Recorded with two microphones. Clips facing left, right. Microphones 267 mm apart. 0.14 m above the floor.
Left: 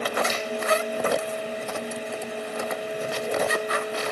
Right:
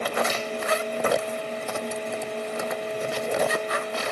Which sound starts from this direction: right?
A finger snap, at 0.3 s.